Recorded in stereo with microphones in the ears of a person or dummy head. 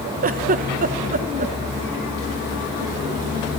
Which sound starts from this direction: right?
A giggle, at 0.2 s.